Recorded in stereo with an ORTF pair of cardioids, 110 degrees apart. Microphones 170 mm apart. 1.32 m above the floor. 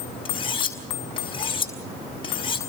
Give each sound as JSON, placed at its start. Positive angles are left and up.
{"t": 0.2, "sound": "cutlery clinking", "azimuth_deg": 30, "distance_m": 4.5}